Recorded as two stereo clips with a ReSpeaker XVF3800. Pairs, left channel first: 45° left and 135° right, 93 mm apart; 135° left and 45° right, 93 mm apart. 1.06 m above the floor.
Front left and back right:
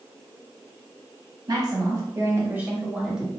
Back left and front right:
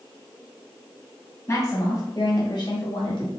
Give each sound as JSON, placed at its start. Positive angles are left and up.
{"t": 1.5, "sound": "a woman speaking", "azimuth_deg": -170, "distance_m": 1.4}